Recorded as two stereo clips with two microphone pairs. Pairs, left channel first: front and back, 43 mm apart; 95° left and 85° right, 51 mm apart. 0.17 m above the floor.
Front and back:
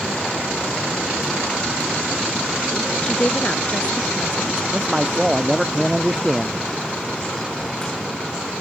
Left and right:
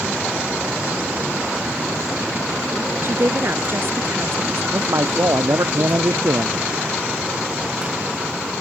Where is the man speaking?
95° right.